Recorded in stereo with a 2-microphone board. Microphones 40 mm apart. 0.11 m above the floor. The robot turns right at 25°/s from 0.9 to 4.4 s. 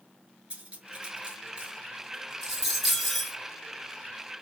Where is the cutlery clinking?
35° right (ahead or behind), 0.8 m; by 3.4 s centre (ahead or behind), 0.8 m.